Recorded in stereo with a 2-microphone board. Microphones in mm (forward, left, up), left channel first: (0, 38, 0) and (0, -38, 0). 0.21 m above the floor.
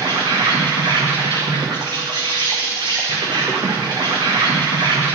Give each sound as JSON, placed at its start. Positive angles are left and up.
{"t": 0.0, "sound": "an insect", "side_deg": -75, "distance_m": 2.0}